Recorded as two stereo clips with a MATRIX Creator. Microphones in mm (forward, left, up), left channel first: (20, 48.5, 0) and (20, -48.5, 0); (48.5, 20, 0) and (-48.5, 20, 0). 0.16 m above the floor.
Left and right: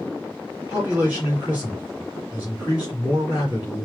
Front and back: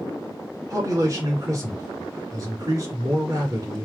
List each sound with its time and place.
0.7 s a man speaking: 155° right, 2 m